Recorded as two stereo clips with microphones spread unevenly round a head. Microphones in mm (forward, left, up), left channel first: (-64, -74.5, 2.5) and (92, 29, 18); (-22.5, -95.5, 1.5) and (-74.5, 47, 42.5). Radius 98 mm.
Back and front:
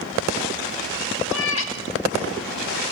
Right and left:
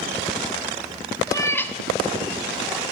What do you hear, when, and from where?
1.3 s a cat meowing: 145° right, 1.5 m; by 2.8 s 170° right, 3 m